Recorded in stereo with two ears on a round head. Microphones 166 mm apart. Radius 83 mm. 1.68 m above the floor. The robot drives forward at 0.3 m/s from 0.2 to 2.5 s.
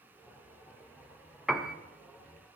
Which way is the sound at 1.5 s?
Centre (ahead or behind).